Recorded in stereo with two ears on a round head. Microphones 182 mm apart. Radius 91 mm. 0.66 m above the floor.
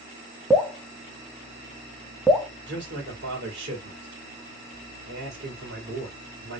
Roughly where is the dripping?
Centre.